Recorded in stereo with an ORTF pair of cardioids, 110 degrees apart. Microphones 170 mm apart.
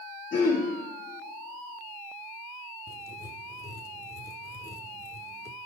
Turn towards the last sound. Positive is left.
turn(degrees=20)